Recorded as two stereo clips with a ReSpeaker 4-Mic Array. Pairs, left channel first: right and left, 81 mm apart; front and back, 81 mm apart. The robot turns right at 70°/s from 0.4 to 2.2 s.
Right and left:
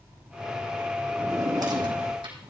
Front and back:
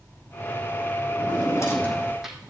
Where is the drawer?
25° left, 3 m; by 2.5 s 95° left, 3 m.